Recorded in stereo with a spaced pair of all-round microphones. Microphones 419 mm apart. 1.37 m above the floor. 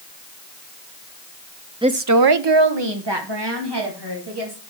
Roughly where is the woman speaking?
Centre.